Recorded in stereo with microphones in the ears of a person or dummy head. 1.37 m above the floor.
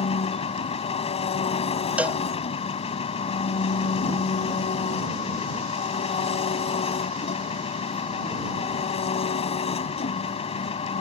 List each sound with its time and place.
0.0 s an engine running: 30° left (ahead or behind)
2.0 s a cowbell: 5° right (ahead or behind)